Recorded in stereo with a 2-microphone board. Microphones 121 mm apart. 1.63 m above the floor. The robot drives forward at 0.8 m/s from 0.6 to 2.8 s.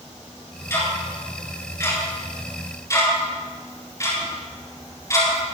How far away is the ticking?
About 8.5 m.